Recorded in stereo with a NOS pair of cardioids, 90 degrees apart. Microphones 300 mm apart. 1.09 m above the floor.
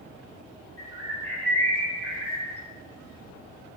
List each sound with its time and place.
0.8 s a bird: 20° right, 5.5 m